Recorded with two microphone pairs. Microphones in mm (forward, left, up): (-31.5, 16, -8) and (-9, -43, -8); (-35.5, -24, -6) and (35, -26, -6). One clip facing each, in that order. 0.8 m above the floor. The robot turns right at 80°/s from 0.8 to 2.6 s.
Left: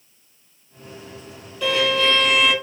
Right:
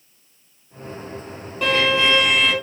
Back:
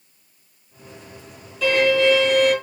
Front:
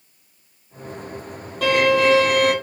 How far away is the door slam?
No door slam in this recording.